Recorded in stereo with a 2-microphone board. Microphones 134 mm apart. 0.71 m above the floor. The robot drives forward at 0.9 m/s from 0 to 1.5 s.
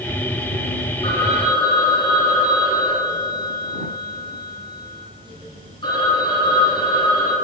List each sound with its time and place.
1.0 s a phone ringing: 45° left (ahead or behind), 6 m; by 7.3 s 40° left (ahead or behind), 6 m